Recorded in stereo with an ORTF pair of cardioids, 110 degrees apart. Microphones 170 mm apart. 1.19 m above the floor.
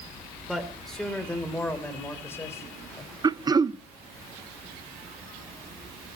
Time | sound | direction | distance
0.5 | a man speaking | straight ahead | 3.5 m
3.2 | throat clearing | 25° right | 0.6 m